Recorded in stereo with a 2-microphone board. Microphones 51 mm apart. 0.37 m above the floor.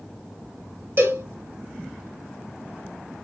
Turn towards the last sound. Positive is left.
turn(degrees=-50)  # may be behind; listen again after turning